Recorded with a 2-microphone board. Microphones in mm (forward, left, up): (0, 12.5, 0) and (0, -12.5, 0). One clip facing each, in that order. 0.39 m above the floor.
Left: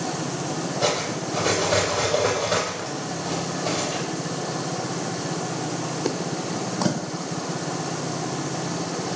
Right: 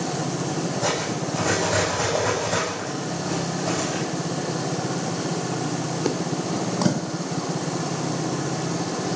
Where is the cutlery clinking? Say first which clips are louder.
Left 4 dB; 40° left (ahead or behind), 8 m.